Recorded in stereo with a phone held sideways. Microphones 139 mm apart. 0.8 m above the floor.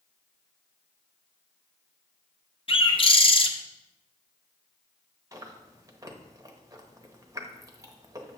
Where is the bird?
35° left (ahead or behind), 0.7 m.